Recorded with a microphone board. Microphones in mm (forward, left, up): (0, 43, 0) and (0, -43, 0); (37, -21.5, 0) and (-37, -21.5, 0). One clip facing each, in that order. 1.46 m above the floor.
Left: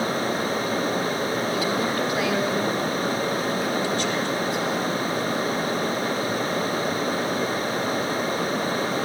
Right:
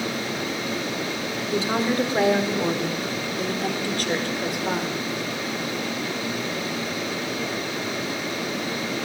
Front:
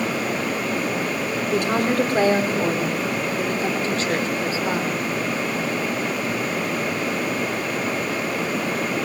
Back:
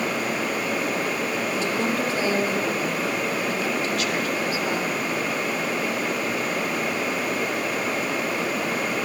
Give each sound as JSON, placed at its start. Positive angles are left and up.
{"t": 1.5, "sound": "a woman speaking", "azimuth_deg": -25, "distance_m": 5.0}